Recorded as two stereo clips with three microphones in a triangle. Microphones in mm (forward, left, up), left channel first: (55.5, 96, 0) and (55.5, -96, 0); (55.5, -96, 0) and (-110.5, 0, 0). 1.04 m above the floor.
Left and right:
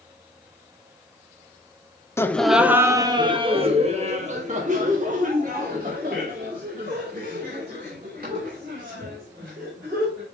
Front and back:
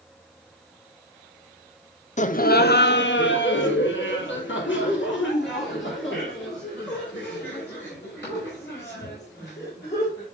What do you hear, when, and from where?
2.2 s laughter: 15° left, 0.6 m; by 10.2 s 55° right, 4.5 m